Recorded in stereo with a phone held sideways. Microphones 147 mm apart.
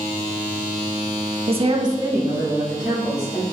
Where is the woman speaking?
40° right (ahead or behind), 0.6 m; by 3.4 s 5° left (ahead or behind), 2 m.